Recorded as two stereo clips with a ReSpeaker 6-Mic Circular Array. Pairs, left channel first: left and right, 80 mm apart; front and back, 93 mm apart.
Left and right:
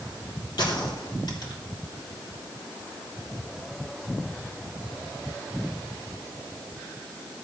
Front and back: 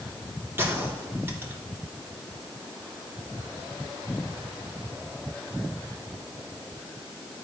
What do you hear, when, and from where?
0.6 s a gunshot: 115° left, 3.5 m